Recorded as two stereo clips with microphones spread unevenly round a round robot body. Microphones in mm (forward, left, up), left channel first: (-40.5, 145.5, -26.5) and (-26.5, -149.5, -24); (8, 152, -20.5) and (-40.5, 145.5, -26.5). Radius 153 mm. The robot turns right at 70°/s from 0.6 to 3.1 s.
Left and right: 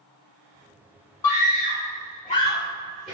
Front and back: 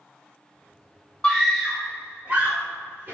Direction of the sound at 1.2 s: 55° left.